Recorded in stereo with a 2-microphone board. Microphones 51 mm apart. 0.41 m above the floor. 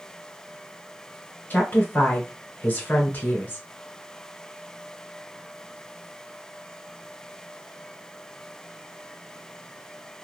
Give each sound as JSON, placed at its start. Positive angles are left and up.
{"t": 1.5, "sound": "a woman speaking", "side_deg": 40, "distance_m": 1.5}